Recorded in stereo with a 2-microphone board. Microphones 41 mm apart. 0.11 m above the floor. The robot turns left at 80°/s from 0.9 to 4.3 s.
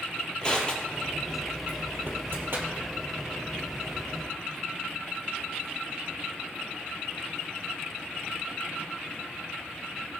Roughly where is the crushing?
Left.